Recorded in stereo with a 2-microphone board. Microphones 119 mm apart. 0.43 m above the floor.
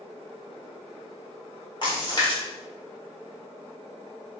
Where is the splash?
40° left (ahead or behind), 1.2 m.